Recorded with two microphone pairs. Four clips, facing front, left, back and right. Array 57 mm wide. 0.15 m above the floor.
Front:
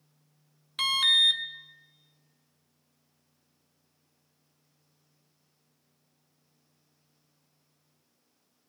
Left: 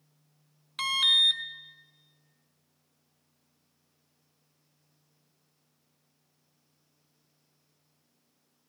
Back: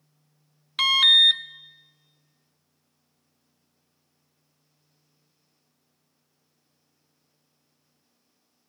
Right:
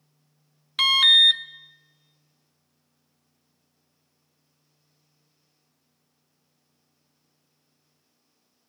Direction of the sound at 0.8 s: 150° right.